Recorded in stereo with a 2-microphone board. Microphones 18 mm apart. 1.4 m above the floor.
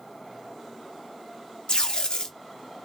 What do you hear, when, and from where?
1.7 s tape being pulled: 50° left (ahead or behind), 0.6 m